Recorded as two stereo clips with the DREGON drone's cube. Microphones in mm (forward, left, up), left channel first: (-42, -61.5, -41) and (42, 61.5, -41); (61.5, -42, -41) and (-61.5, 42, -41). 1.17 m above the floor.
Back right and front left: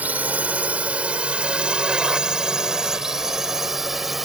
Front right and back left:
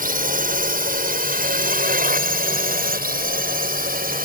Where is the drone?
135° left; by 4.3 s 145° left.